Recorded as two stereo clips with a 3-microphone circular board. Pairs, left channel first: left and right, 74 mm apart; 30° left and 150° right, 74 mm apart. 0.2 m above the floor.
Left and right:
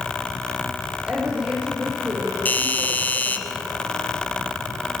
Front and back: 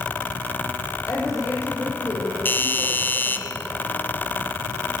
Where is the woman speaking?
15° right, 10 m.